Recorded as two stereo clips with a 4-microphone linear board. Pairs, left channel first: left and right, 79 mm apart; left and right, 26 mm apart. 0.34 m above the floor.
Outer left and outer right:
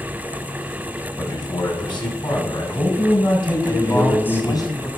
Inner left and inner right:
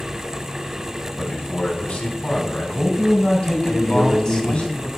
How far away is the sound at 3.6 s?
About 1.9 m.